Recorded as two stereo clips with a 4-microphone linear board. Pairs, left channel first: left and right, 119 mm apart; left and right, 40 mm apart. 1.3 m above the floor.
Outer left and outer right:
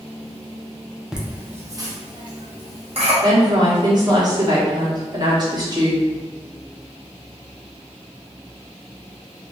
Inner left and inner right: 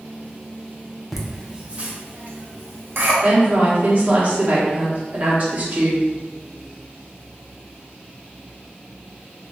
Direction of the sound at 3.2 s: 35° right (ahead or behind).